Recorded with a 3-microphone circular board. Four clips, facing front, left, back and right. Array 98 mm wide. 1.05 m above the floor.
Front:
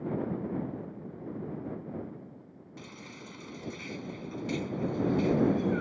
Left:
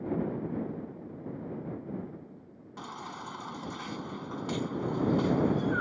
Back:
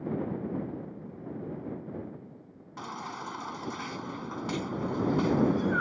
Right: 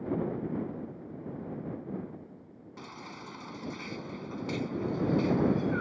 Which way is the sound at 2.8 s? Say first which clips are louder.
Left 4 dB, back 10 dB; 155° left.